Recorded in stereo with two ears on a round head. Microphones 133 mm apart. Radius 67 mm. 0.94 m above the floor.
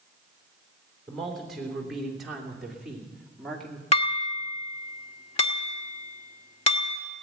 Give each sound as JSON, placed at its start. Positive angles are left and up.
{"t": 1.1, "sound": "a man speaking", "side_deg": 0, "distance_m": 3.5}
{"t": 3.9, "sound": "dishes clattering", "side_deg": 40, "distance_m": 1.4}